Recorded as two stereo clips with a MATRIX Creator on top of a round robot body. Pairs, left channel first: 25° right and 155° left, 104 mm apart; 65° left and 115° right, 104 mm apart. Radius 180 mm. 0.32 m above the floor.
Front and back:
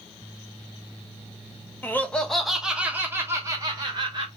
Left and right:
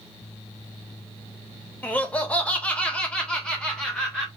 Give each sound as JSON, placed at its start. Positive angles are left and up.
{"t": 1.8, "sound": "laughter", "azimuth_deg": 15, "distance_m": 1.4}